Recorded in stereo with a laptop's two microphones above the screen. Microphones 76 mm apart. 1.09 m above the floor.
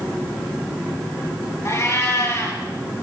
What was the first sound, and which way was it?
A cat meowing, 40° left (ahead or behind).